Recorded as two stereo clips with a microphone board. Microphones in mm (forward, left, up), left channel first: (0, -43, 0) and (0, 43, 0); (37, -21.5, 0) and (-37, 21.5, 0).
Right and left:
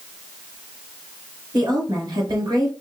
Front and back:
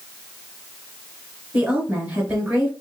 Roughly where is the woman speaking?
Left.